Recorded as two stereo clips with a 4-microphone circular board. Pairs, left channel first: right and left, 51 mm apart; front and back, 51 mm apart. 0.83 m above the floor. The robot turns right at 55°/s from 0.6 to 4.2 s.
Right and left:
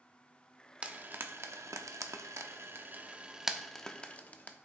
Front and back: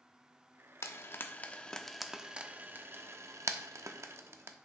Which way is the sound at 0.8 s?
25° left.